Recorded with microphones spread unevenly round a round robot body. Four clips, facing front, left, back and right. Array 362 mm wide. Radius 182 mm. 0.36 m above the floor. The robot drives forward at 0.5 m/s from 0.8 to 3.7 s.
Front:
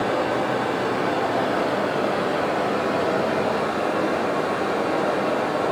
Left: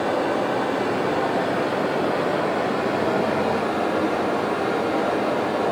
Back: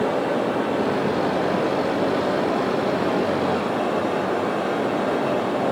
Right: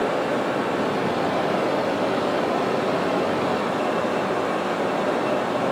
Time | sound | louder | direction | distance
0.0 | running water | left 1 dB, back 1 dB | 60° left | 5.5 m